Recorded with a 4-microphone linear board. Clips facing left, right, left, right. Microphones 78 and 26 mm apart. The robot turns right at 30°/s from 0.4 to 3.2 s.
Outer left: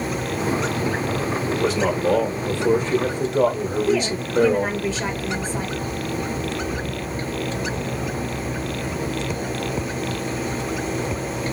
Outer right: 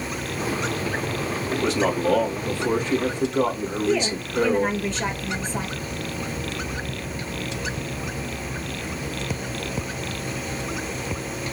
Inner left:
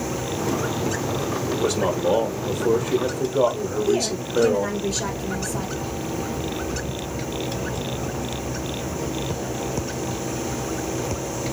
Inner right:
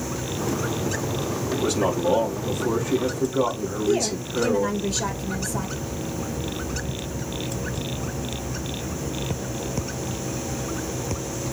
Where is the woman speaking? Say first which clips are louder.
Even, inner right 1 dB; 5° left (ahead or behind), 1.6 m.